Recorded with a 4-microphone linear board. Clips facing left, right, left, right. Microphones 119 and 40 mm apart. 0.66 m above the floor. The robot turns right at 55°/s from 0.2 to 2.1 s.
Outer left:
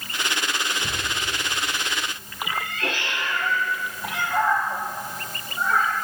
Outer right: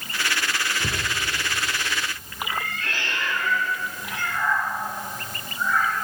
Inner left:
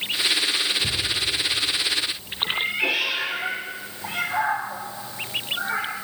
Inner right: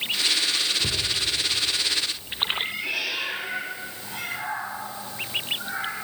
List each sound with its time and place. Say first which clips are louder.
0.8 s a cupboard door: outer right 1 dB, inner left 1 dB; 25° right (ahead or behind), 4 m; by 1.1 s 40° right (ahead or behind), 4 m
2.5 s a cat meowing: outer left 3 dB, inner left 7 dB; 85° left, 6 m